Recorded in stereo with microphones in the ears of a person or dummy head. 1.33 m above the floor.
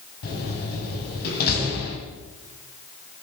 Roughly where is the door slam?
Left.